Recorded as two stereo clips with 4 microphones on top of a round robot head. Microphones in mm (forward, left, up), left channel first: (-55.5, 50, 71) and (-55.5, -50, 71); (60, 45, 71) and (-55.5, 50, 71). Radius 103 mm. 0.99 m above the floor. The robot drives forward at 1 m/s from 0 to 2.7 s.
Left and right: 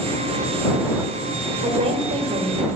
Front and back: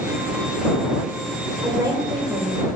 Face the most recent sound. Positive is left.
turn(degrees=-125)